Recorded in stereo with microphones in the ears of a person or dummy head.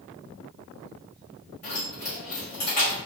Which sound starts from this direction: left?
Keys jangling, at 1.6 s.